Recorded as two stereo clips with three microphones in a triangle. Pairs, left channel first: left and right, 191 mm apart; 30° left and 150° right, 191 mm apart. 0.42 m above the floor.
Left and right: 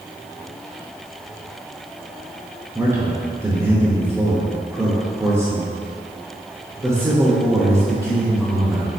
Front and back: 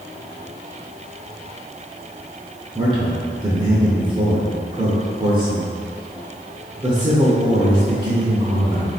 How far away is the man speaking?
About 0.8 m.